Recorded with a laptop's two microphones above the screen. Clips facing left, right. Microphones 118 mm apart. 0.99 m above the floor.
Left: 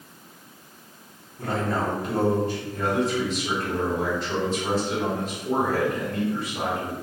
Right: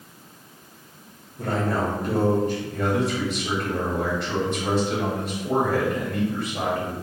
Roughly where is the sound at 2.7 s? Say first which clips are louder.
Left 2 dB; right.